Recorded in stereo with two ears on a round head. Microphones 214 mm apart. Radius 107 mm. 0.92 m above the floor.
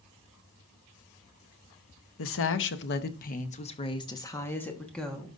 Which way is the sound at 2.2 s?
60° left (ahead or behind).